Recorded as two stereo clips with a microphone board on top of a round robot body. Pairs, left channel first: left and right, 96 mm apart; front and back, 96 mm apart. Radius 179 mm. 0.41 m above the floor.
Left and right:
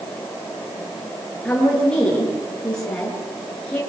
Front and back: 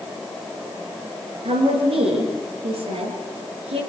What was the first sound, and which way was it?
A woman speaking, 170° left.